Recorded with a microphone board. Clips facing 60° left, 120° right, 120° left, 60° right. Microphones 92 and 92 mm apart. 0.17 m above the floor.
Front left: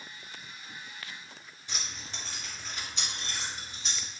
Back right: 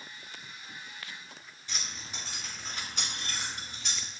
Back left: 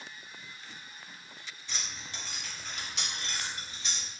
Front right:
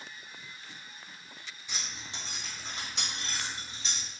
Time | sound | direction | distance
1.7 | keys jangling | 5° left | 0.8 m